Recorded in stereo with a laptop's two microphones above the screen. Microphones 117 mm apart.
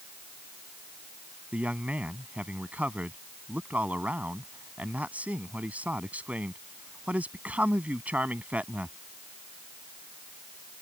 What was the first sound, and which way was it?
A man speaking, 10° right (ahead or behind).